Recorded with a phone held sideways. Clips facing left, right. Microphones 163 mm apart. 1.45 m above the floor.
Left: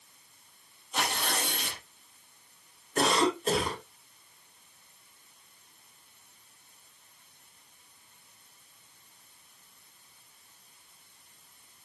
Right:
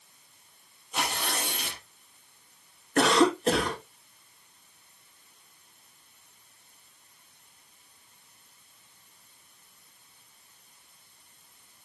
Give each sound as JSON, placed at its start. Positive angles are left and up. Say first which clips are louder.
{"t": 0.9, "sound": "tearing paper", "louder": "even", "side_deg": -5, "distance_m": 5.5}
{"t": 3.0, "sound": "a cough", "louder": "right 4 dB", "side_deg": -70, "distance_m": 2.5}